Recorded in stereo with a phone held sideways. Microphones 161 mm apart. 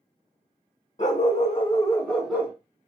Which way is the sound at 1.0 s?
45° left (ahead or behind).